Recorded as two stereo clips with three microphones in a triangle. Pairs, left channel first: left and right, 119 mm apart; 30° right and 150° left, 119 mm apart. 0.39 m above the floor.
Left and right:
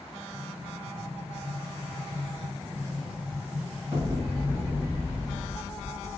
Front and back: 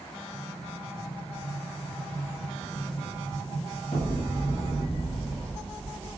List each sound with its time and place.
0.3 s an explosion: 25° right, 1.3 m